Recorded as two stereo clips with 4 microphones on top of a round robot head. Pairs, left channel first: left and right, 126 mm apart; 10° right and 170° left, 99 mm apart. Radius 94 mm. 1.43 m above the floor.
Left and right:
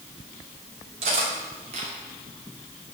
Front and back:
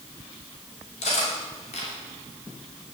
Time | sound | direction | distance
1.0 | cutlery clinking | 40° right | 2.5 m